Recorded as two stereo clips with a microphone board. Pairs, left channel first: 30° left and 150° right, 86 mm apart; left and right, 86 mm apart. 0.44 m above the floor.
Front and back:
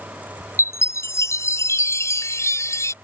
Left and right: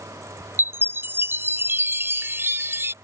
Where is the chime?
25° right.